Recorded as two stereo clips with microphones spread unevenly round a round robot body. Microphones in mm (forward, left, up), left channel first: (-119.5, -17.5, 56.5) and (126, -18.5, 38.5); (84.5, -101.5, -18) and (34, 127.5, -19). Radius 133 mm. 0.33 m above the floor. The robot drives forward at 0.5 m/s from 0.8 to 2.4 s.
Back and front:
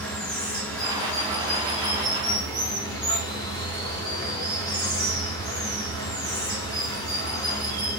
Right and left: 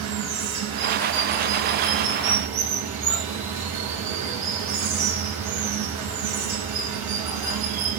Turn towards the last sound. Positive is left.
turn(degrees=105)